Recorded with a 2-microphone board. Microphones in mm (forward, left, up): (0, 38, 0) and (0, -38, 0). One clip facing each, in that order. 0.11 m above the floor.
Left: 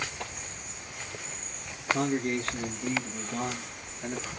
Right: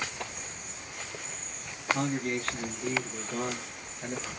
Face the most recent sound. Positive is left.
turn(degrees=-35)  # may be behind; listen again after turning